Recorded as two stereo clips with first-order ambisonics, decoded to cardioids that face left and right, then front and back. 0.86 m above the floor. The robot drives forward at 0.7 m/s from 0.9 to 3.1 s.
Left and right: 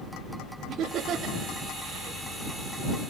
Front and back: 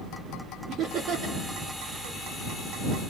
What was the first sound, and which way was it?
Laughter, 140° right.